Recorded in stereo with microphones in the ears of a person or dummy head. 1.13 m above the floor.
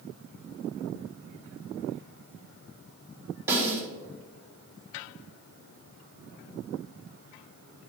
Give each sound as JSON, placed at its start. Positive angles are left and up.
{"t": 3.5, "sound": "a snare drum", "side_deg": -10, "distance_m": 3.5}